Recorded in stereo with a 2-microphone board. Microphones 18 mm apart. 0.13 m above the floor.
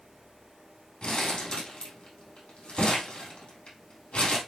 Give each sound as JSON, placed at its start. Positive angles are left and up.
{"t": 1.0, "sound": "crumpling", "side_deg": 70, "distance_m": 5.0}